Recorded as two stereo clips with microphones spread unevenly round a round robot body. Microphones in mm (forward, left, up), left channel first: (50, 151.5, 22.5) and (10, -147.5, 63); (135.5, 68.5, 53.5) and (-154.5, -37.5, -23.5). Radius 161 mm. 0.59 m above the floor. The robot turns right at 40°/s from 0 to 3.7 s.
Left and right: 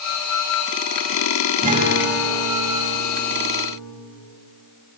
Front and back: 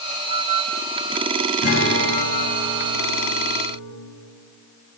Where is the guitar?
35° right, 2.5 m; by 3.9 s 50° left, 2.5 m.